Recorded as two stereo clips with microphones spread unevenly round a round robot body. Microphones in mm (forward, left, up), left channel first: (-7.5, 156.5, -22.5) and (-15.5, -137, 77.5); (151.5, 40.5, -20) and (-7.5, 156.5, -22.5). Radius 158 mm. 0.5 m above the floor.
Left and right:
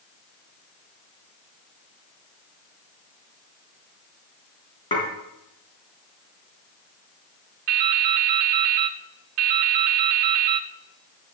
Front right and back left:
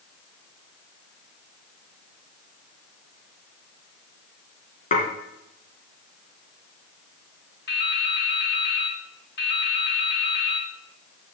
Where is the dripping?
95° right, 0.9 m.